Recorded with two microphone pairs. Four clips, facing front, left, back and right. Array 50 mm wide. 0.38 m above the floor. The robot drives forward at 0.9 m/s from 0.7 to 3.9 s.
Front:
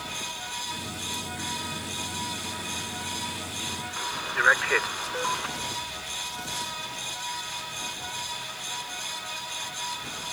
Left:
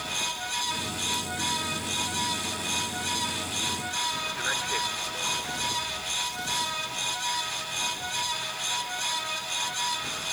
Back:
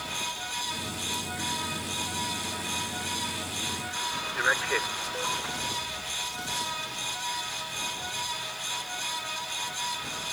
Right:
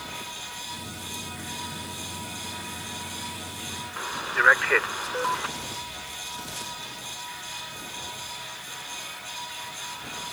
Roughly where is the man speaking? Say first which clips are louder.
Right 5 dB, front 4 dB; right.